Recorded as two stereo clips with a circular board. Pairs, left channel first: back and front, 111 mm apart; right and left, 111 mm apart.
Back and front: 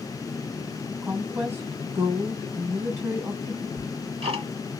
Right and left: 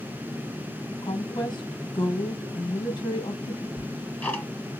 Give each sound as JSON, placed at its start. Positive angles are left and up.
{"t": 1.0, "sound": "a woman speaking", "azimuth_deg": -65, "distance_m": 2.0}
{"t": 3.8, "sound": "ticking", "azimuth_deg": -15, "distance_m": 3.0}